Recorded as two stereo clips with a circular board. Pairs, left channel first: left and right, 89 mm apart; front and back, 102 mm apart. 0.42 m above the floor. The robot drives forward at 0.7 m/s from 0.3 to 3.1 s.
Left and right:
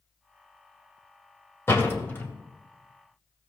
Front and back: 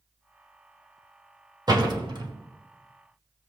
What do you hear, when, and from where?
1.7 s a door slam: 145° left, 1.6 m; by 2.3 s 155° left, 1.9 m